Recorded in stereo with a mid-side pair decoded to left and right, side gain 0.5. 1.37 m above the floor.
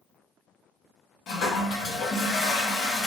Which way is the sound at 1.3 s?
70° left.